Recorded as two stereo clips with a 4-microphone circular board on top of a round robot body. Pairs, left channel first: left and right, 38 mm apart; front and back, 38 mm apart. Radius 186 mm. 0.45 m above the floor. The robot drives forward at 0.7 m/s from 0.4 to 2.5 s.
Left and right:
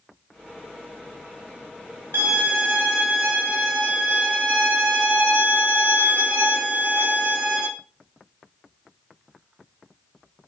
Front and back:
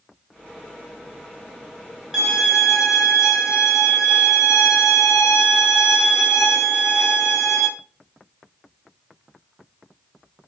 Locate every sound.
2.1 s a violin: 100° right, 0.7 m; by 7.7 s 115° right, 0.8 m